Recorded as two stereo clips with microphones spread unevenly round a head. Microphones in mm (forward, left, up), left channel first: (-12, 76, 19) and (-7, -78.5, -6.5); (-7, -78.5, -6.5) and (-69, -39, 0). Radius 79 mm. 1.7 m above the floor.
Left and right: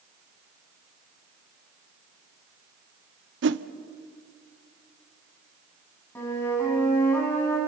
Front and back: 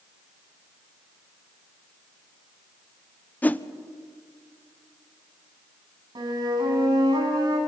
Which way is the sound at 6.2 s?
170° left.